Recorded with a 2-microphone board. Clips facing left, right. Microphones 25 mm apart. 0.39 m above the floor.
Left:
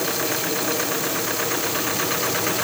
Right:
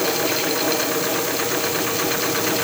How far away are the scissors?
I don't hear scissors.